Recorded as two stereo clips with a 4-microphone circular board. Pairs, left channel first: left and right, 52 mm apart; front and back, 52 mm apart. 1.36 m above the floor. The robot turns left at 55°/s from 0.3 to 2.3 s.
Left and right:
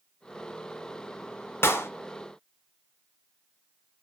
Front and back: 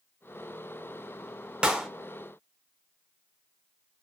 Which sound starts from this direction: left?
A clap, at 1.6 s.